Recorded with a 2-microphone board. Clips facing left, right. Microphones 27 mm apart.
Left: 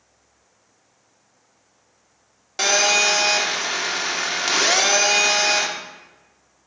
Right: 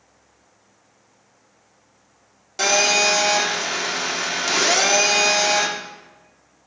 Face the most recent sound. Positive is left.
turn(degrees=15)  # may be behind; listen again after turning